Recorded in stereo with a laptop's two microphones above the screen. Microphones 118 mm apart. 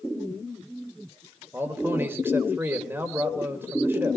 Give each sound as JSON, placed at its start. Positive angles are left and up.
{"t": 1.5, "sound": "a man speaking", "side_deg": -20, "distance_m": 3.5}